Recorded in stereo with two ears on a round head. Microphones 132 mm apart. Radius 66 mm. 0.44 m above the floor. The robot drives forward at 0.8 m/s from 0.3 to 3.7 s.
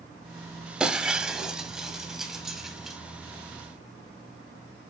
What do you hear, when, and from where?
0.8 s breaking glass: 5° right (ahead or behind), 1.1 m